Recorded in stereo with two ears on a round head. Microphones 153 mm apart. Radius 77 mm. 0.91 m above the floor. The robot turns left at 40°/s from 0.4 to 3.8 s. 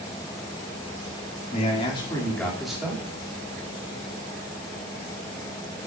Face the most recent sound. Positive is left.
turn(degrees=-45)